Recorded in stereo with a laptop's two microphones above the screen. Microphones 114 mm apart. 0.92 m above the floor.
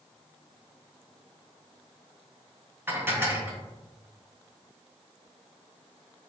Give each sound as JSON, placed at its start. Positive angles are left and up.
{"t": 2.9, "sound": "dishes clattering", "side_deg": -20, "distance_m": 1.2}